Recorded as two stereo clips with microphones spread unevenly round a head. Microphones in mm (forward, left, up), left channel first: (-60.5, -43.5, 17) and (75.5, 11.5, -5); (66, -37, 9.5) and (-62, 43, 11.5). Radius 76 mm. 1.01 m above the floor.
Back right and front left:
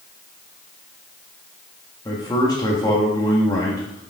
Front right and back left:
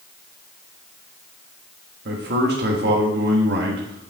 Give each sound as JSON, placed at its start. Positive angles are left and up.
{"t": 2.0, "sound": "a man speaking", "azimuth_deg": 135, "distance_m": 1.4}